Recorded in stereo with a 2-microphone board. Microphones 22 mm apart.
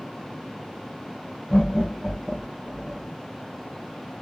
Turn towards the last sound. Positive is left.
turn(degrees=20)  # may be behind; listen again after turning